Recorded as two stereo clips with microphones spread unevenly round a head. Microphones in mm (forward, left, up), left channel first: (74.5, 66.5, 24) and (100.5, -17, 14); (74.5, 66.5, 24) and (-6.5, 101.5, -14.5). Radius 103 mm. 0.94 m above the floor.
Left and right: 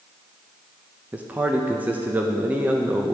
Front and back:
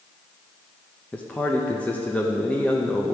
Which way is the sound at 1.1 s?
125° right.